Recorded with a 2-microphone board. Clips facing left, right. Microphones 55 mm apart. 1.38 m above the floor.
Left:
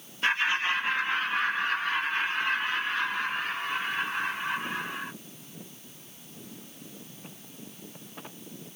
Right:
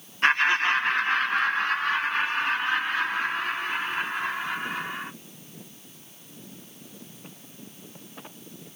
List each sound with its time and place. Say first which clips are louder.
0.2 s laughter: right 5 dB; 50° right (ahead or behind), 1.3 m; by 5.1 s 85° right, 4.5 m